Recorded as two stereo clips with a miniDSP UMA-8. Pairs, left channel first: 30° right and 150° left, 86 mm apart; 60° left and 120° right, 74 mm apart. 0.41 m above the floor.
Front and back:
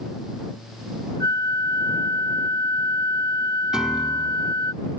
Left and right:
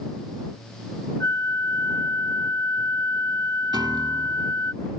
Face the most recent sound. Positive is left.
turn(degrees=-130)